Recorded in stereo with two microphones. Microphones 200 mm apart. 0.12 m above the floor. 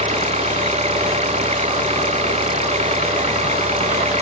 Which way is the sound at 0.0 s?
35° right (ahead or behind).